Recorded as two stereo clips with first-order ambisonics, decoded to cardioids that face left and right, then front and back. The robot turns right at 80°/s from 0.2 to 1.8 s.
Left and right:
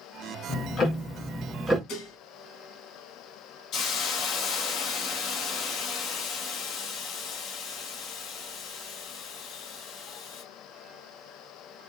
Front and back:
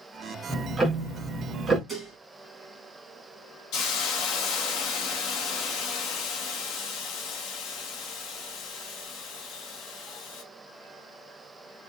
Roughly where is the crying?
I don't hear crying.